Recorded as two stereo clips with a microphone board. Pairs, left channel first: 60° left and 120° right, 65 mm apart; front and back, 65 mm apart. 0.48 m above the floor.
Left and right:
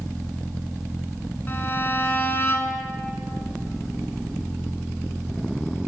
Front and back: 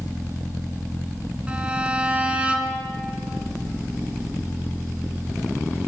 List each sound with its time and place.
1.5 s a violin: 110° left, 0.7 m